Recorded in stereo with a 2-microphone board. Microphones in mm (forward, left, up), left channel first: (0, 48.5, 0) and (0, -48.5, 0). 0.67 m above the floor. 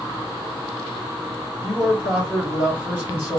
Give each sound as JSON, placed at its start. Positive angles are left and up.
{"t": 1.6, "sound": "a man speaking", "side_deg": -20, "distance_m": 3.0}